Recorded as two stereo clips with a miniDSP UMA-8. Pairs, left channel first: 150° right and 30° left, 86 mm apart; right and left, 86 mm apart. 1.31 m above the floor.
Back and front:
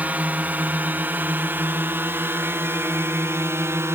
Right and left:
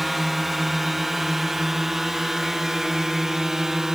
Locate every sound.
0.0 s a drone: 5° left; by 4.0 s 10° left